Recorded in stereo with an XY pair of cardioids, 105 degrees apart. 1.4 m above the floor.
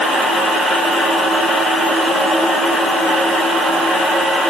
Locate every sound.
Only background noise.